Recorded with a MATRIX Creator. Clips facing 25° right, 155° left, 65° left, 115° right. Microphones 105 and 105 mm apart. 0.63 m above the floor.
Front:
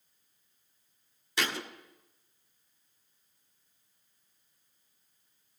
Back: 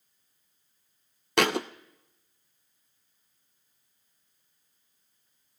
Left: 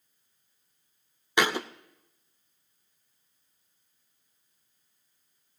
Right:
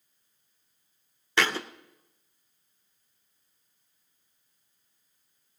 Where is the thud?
140° left, 0.6 m.